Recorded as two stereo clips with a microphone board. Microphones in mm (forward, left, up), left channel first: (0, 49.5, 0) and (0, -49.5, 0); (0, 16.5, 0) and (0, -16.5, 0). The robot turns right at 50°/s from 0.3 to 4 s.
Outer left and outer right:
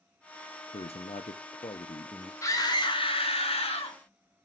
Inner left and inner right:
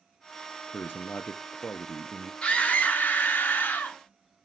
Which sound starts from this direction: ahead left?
A scream, at 2.4 s.